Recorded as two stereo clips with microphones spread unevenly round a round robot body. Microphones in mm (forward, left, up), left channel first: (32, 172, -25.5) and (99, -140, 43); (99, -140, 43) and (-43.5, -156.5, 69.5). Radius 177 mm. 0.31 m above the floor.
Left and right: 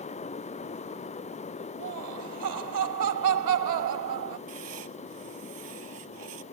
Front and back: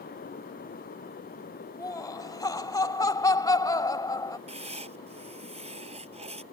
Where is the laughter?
50° right.